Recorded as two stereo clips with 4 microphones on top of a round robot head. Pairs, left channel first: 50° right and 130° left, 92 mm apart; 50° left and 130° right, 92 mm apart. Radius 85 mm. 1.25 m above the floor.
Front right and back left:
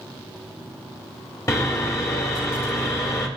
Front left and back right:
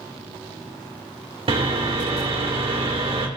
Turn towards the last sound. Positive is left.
turn(degrees=-110)